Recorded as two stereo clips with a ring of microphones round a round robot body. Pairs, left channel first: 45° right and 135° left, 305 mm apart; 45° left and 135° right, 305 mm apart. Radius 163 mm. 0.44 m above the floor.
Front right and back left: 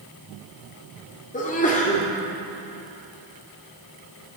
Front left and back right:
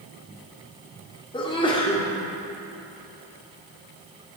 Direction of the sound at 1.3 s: 10° right.